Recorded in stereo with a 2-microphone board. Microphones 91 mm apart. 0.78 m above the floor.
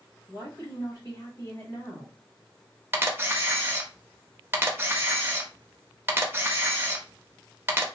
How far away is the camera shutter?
About 0.6 m.